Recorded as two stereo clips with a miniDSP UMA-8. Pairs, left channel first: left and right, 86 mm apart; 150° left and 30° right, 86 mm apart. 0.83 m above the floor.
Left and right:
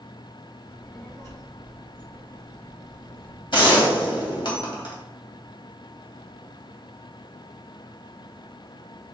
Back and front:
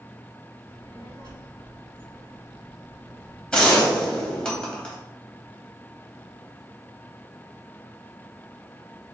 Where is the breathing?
No breathing in this recording.